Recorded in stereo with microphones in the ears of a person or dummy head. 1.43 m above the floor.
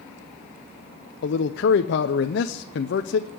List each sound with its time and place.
1.2 s a man speaking: 55° left (ahead or behind), 0.7 m